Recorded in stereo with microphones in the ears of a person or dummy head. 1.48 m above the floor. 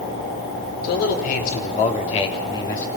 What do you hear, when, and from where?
0.8 s a man speaking: 55° left (ahead or behind), 4 m; by 2.9 s 15° left (ahead or behind), 2 m